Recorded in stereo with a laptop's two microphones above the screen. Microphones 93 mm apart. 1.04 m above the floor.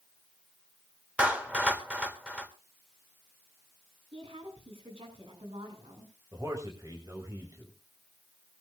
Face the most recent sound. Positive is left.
turn(degrees=-40)  # may be behind; listen again after turning